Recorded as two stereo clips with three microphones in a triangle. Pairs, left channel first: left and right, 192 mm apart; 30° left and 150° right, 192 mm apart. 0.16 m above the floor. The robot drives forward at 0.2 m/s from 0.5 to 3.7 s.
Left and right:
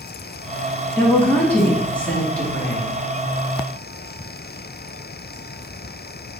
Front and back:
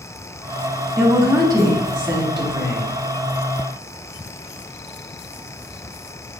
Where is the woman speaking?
160° left, 1.3 m; by 2.9 s 170° left, 1.5 m.